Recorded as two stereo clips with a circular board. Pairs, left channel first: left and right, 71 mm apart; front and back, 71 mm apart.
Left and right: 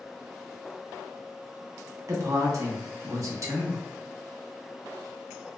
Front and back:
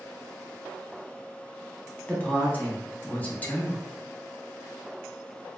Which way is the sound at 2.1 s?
65° right.